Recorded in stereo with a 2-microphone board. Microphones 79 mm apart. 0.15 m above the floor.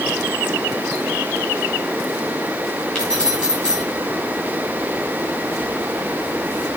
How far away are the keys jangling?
About 9.5 m.